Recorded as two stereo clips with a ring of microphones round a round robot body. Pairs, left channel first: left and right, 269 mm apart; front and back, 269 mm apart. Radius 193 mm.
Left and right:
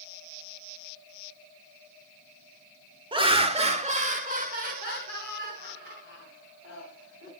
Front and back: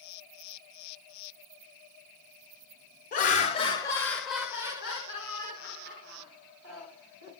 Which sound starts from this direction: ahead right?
Laughter, at 3.1 s.